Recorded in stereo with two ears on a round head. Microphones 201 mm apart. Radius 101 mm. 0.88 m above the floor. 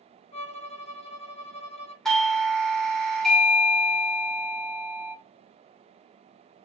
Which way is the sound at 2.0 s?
Centre (ahead or behind).